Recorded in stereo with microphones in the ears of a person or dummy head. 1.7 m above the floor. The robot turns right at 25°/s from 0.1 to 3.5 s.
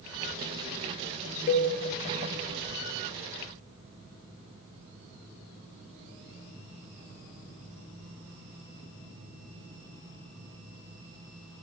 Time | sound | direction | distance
1.5 | a cowbell | 35° left (ahead or behind) | 0.6 m